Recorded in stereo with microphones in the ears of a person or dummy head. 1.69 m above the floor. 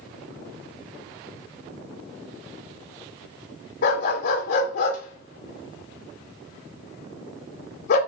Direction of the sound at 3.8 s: 60° left (ahead or behind).